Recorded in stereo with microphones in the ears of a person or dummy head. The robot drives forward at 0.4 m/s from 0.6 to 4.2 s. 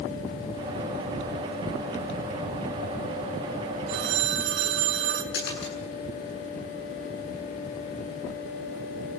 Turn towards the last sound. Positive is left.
turn(degrees=60)  # may be behind; listen again after turning